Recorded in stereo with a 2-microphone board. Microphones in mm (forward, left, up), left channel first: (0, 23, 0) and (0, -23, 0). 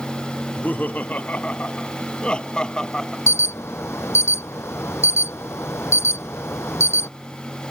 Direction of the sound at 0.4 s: 40° left (ahead or behind).